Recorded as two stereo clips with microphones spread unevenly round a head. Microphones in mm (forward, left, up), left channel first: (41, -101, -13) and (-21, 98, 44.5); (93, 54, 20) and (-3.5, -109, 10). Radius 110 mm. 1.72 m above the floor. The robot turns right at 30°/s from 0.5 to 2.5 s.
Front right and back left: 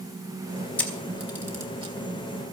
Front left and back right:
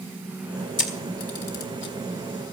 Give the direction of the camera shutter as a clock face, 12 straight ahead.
11 o'clock.